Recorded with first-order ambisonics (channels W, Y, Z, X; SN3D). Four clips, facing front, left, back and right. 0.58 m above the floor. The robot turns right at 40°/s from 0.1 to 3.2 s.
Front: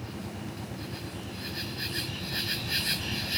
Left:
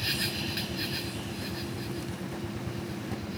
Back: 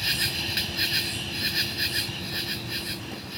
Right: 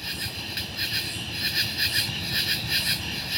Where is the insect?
175° left; by 3.4 s 65° right.